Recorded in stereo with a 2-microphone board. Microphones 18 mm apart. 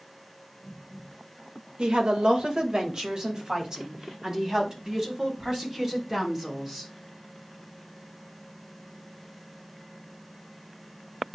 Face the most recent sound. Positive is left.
turn(degrees=-30)  # may be behind; listen again after turning